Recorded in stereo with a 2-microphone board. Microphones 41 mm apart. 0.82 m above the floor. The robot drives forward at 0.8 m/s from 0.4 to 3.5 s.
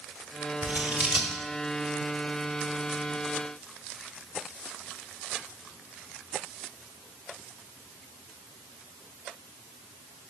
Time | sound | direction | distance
0.6 | scissors | 45° right (ahead or behind) | 1.4 m